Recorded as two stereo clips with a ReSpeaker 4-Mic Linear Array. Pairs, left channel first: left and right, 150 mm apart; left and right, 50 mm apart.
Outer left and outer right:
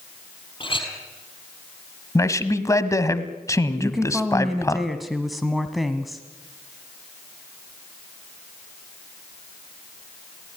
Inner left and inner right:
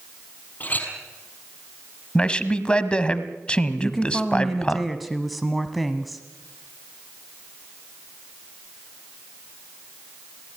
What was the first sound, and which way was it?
A clink, 35° left (ahead or behind).